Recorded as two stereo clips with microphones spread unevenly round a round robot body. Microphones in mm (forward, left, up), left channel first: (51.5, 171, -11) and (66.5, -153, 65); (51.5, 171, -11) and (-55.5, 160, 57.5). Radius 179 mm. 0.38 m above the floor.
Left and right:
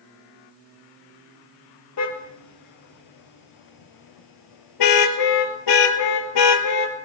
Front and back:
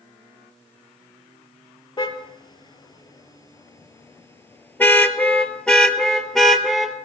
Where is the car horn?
55° left, 3.5 m; by 7.0 s 100° left, 3.5 m.